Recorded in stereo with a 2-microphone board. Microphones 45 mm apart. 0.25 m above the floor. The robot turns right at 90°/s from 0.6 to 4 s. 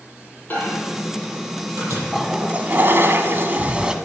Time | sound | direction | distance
0.5 | a microwave | 40° left (ahead or behind) | 6.5 m
2.1 | a toilet flushing | straight behind | 1.0 m